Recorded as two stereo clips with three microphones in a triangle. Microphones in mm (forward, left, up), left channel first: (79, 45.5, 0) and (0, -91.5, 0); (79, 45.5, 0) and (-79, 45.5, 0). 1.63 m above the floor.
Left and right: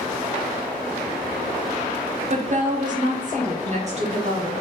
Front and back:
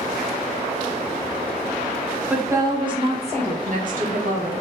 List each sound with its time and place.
2.3 s a woman speaking: 105° right, 0.7 m; by 4.5 s 165° right, 1.4 m